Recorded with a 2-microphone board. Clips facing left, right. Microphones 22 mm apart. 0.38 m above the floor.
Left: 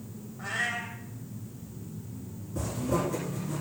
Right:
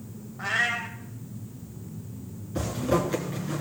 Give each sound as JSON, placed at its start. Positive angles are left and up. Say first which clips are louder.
{"t": 0.4, "sound": "a cat meowing", "louder": "right 5 dB", "side_deg": -30, "distance_m": 0.9}
{"t": 2.5, "sound": "a zipper", "louder": "right 4 dB", "side_deg": -50, "distance_m": 2.0}